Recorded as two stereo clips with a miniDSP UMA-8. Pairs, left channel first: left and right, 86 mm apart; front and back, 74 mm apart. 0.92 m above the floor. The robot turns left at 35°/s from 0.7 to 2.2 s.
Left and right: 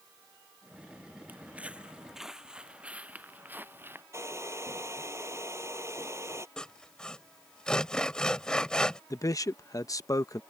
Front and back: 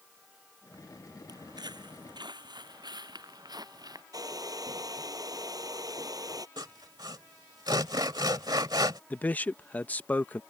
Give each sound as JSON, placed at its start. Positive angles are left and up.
{"t": 1.3, "sound": "footsteps", "azimuth_deg": -160}
{"t": 4.1, "sound": "a hair dryer", "azimuth_deg": -145}
{"t": 6.6, "sound": "sawing", "azimuth_deg": 170}
{"t": 9.1, "sound": "a man speaking", "azimuth_deg": 60}